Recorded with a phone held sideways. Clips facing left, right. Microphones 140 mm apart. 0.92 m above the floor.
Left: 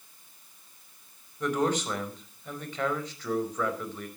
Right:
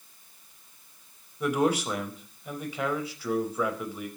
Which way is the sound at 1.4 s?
10° right (ahead or behind).